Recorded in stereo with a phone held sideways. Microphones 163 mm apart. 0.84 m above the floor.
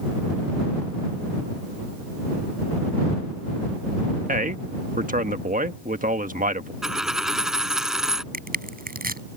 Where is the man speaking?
55° right (ahead or behind).